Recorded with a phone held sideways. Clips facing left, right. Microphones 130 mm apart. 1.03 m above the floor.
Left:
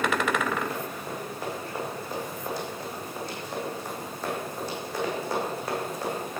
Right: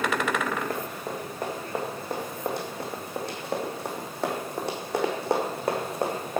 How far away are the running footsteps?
About 3 m.